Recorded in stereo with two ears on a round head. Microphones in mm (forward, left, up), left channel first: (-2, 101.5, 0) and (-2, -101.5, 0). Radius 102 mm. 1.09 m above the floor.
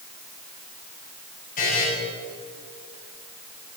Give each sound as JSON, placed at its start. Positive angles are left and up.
{"t": 1.6, "sound": "a buzzer", "side_deg": 40, "distance_m": 5.5}